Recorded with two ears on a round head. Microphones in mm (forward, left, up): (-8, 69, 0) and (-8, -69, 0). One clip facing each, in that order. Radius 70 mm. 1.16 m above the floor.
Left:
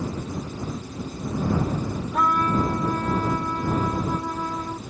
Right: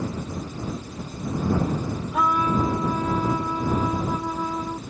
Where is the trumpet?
5° right (ahead or behind).